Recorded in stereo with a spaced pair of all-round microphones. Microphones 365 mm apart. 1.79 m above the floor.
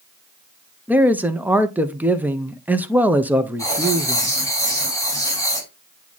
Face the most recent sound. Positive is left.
turn(degrees=10)  # may be behind; listen again after turning